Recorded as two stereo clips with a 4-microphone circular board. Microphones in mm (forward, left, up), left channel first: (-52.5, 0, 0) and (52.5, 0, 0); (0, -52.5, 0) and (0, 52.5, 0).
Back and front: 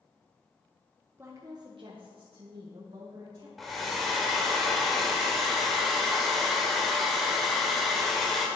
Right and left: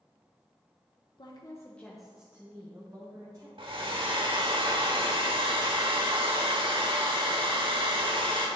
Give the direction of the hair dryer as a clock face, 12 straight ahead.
9 o'clock.